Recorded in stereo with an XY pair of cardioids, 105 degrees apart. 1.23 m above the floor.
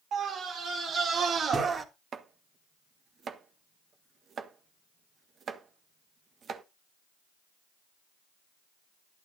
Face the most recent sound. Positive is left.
turn(degrees=-50)